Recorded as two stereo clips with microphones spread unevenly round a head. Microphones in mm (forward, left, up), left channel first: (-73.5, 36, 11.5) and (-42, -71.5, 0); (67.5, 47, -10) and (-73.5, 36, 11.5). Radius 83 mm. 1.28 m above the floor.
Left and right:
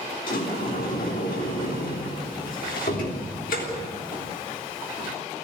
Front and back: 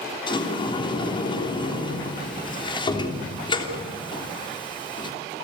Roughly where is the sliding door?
Ahead left.